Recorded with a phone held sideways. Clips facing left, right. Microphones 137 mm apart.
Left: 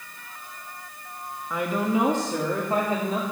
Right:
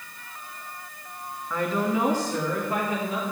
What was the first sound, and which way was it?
A woman speaking, 10° left (ahead or behind).